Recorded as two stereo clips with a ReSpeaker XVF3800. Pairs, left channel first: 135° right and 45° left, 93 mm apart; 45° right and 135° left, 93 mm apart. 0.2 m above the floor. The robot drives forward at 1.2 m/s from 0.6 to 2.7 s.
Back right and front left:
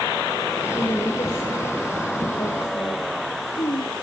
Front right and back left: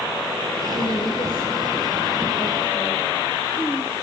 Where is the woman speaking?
75° right, 5 m; by 3.9 s 100° right, 4.5 m.